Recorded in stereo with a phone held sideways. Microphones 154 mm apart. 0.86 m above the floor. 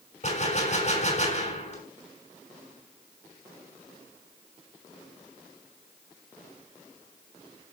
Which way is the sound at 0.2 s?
50° left (ahead or behind).